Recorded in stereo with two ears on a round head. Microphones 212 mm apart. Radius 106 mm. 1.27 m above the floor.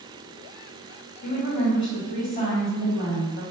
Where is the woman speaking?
40° left (ahead or behind), 1.9 m.